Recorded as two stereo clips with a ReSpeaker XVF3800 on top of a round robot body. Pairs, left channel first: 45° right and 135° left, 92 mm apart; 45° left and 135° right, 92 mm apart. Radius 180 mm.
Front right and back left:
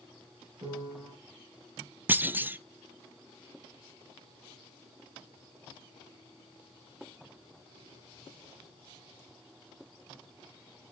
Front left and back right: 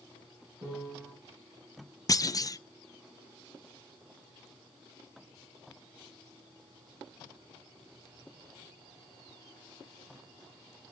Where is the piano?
Straight behind, 7.5 m.